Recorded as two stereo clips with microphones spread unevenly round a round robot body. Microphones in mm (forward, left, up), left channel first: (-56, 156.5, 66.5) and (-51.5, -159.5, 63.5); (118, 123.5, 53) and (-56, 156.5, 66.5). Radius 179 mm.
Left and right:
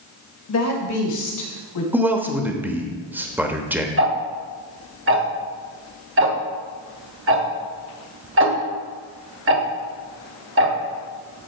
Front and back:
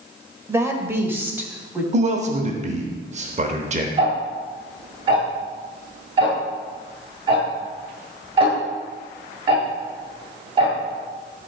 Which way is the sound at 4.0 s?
130° right.